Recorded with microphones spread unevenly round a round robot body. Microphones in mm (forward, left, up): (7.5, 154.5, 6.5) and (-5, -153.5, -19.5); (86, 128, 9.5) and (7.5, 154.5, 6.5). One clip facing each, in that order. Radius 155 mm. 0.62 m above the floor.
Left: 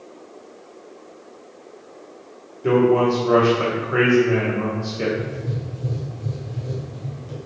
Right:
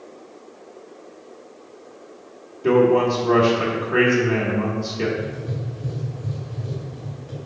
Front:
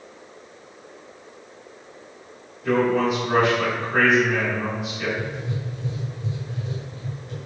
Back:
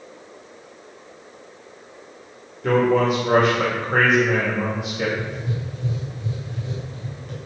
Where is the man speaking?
175° right, 2.5 m.